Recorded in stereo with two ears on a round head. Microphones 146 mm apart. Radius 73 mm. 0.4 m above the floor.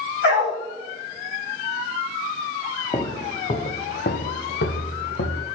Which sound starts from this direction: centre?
Footsteps, at 2.9 s.